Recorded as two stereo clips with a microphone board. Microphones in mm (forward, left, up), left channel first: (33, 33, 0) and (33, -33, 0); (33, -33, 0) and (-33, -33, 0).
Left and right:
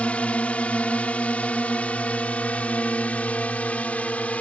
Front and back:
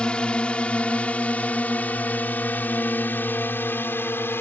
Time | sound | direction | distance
0.0 | a drone | 50° left | ?